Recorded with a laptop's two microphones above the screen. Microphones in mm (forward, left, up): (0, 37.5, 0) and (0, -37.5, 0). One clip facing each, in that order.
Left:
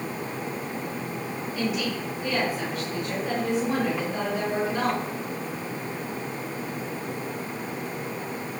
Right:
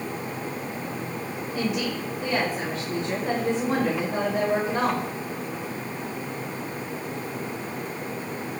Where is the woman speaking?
65° right (ahead or behind), 2.0 m.